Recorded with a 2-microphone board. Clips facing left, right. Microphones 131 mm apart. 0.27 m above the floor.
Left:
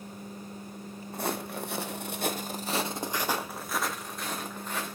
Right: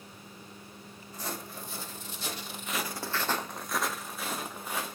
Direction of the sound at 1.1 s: 60° left (ahead or behind).